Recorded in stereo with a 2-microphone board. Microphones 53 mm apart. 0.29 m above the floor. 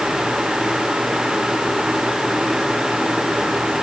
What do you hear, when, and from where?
Only background noise.